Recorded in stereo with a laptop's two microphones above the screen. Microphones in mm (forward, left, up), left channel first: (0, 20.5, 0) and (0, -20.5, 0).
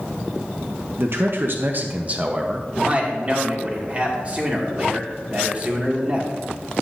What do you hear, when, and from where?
1.0 s a man speaking: 65° right (ahead or behind), 0.9 m; by 2.6 s 20° right (ahead or behind), 1.3 m
2.7 s a man speaking: 30° right (ahead or behind), 2.5 m